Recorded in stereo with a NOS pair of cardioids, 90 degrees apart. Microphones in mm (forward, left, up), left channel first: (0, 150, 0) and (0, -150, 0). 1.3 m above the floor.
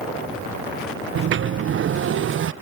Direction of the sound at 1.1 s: 40° right.